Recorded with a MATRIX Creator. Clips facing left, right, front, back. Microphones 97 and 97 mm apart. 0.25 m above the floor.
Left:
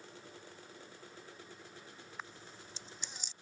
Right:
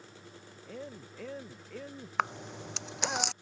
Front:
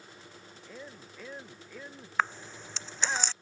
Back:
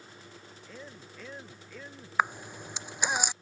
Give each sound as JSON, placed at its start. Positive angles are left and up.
{"t": 0.7, "sound": "a man speaking", "azimuth_deg": -85}
{"t": 2.2, "sound": "a camera shutter", "azimuth_deg": -105}